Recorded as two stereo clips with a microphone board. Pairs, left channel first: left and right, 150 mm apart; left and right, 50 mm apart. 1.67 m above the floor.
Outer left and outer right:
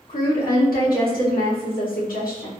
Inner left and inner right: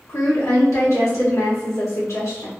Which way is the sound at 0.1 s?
75° left (ahead or behind).